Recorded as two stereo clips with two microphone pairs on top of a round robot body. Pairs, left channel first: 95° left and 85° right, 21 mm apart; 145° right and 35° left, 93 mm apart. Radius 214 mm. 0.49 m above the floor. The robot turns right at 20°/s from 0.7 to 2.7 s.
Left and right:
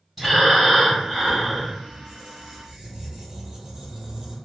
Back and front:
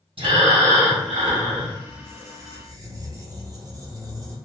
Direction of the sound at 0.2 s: 5° left.